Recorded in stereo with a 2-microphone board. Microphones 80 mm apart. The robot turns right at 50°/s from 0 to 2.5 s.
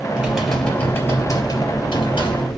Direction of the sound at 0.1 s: 20° right.